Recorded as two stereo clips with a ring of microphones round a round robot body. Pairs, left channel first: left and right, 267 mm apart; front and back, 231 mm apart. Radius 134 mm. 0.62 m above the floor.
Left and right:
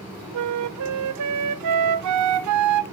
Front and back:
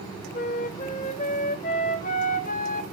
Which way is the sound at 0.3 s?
65° right.